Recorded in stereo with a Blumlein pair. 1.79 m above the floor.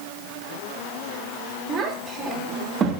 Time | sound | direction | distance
1.7 | a child speaking | 15° right | 3 m